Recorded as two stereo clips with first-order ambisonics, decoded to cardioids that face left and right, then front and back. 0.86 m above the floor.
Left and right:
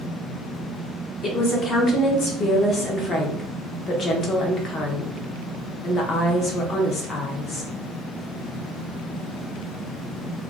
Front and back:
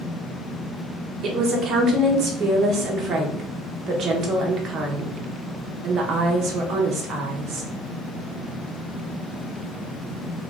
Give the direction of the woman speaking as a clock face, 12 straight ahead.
7 o'clock.